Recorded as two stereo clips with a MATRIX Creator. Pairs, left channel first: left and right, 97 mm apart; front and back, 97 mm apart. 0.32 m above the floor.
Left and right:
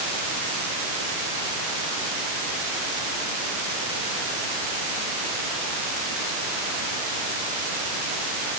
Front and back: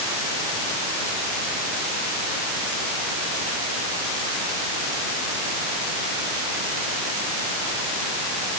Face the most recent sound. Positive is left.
No sound to turn to.